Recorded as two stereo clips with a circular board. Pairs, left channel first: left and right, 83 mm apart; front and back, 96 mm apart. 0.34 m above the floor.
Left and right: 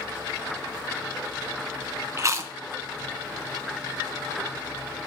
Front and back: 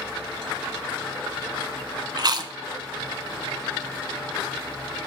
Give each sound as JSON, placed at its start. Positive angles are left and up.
{"t": 2.2, "sound": "chewing", "azimuth_deg": -140, "distance_m": 0.5}